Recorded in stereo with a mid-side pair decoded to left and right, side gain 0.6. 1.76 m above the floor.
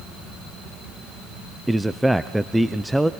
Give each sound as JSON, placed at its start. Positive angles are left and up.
{"t": 1.7, "sound": "a man speaking", "azimuth_deg": -5, "distance_m": 0.8}